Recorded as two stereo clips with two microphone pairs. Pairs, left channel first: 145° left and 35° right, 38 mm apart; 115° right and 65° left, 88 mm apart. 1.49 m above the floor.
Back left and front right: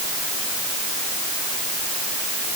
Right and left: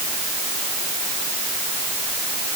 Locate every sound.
Only background noise.